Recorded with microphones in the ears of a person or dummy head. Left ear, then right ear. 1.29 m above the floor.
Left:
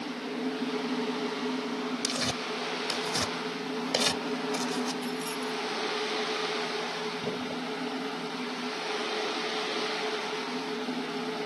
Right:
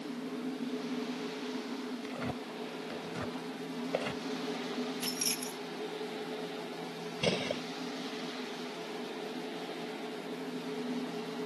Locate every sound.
2.0 s tearing paper: 85° left
5.0 s keys jangling: 25° right (ahead or behind)
7.2 s a gunshot: 60° right (ahead or behind)